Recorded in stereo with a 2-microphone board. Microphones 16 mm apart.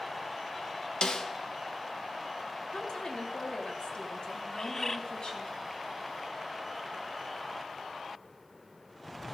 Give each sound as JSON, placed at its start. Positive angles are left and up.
{"t": 1.0, "sound": "a snare drum", "side_deg": 75, "distance_m": 1.4}
{"t": 2.7, "sound": "a woman speaking", "side_deg": 65, "distance_m": 3.0}
{"t": 4.5, "sound": "a bird", "side_deg": 20, "distance_m": 0.8}